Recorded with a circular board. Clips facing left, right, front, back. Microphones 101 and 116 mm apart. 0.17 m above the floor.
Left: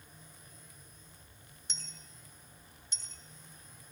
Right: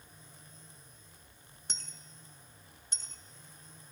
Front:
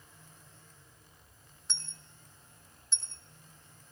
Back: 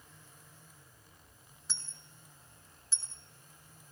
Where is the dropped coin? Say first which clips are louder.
Right 2 dB, front 2 dB; 95° right, 0.7 m.